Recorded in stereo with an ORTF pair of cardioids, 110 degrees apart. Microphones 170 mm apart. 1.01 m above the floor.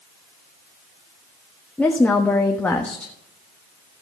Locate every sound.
1.8 s a woman speaking: 10° left, 1.2 m